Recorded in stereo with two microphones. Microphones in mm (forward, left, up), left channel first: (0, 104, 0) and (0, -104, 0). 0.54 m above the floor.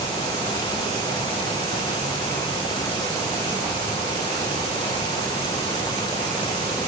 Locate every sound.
Only background noise.